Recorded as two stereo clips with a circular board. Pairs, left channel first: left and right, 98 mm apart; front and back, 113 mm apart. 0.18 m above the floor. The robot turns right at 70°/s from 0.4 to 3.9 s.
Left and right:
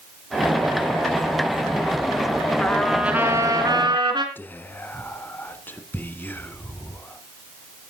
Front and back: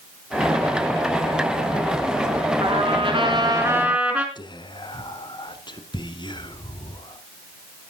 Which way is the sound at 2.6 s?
165° left.